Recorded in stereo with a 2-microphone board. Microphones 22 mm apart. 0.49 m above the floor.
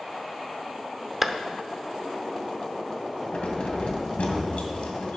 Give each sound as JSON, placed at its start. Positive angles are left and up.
{"t": 1.2, "sound": "a clap", "side_deg": -10, "distance_m": 0.8}
{"t": 3.3, "sound": "keys jangling", "side_deg": 80, "distance_m": 2.0}